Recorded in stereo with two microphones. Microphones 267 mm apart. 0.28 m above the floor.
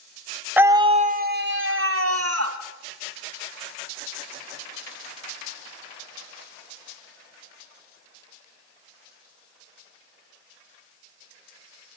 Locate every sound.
0.6 s a scream: 5° right (ahead or behind), 1.4 m; by 2.6 s 65° right (ahead or behind), 2.5 m